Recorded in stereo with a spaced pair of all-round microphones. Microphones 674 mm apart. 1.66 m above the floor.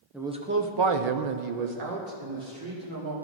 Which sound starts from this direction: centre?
A man speaking, at 0.1 s.